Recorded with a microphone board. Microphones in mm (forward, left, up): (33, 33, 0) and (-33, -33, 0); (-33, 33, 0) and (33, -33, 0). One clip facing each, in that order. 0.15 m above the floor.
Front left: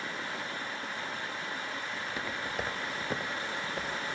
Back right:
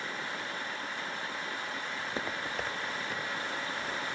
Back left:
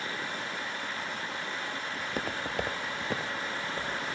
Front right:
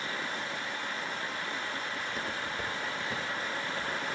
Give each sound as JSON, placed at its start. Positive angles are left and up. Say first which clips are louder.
{"t": 2.0, "sound": "footsteps", "louder": "back right 2 dB, back left 2 dB", "azimuth_deg": 175, "distance_m": 1.0}